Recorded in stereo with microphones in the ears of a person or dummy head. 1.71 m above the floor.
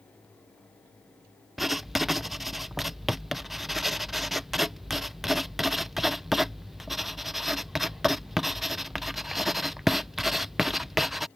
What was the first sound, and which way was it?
Writing, 5° right (ahead or behind).